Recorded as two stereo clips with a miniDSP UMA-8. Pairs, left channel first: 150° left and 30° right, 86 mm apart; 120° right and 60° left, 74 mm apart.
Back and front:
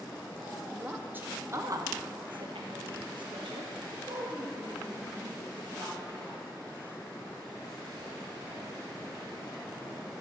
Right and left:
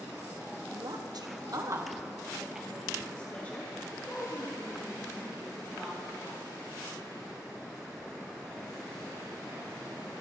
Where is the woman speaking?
50° left, 1.0 m; by 6.4 s 75° right, 2.5 m.